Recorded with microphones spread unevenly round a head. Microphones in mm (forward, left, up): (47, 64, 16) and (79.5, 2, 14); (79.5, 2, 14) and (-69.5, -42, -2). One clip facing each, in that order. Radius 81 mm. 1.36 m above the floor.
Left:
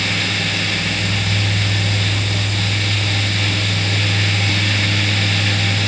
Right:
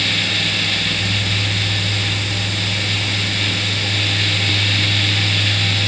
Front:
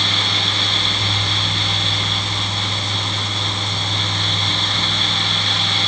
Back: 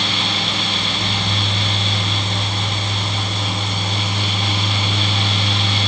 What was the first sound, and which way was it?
Only background noise.